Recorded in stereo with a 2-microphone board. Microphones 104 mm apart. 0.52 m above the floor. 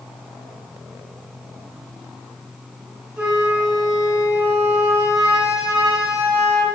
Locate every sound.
3.2 s a flute: 15° right (ahead or behind), 1.4 m